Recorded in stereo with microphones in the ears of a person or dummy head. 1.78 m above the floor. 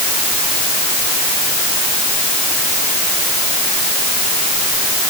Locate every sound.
Only background noise.